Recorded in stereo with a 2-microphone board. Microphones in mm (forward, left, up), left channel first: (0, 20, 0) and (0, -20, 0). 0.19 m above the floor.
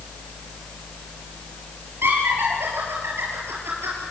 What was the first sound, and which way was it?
Laughter, 70° right (ahead or behind).